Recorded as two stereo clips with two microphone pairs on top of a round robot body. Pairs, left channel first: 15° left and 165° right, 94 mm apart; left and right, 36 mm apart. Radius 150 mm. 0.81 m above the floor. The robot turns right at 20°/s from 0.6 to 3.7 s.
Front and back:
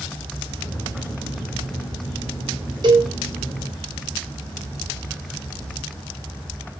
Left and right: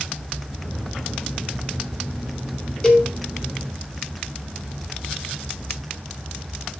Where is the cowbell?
155° left, 3.5 m; by 3.1 s 160° left, 3.5 m.